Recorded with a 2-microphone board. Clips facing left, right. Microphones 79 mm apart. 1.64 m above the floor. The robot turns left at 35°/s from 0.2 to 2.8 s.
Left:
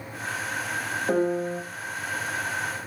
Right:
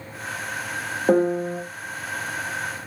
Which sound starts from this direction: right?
A piano, at 1.1 s.